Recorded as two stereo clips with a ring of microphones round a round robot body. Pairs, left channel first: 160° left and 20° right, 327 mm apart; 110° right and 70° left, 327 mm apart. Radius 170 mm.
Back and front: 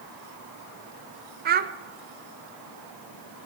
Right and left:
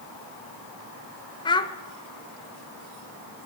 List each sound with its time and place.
1.4 s a child speaking: 50° right, 0.7 m